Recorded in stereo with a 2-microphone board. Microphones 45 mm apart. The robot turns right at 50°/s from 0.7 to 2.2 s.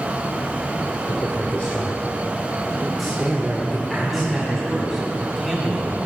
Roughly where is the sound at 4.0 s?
Centre.